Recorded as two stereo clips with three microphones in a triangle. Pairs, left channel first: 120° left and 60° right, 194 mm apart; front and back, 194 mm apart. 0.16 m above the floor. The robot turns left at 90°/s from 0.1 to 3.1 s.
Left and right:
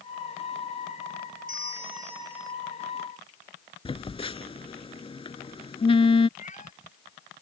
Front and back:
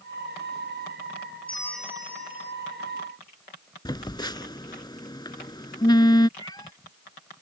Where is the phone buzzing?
65° left.